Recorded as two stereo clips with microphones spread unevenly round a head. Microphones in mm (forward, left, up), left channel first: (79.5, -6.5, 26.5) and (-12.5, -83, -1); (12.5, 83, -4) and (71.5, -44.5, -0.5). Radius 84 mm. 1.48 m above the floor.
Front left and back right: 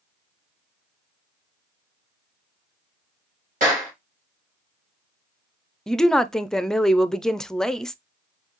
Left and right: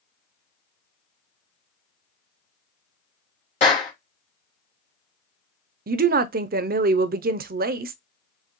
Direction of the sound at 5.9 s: 45° right.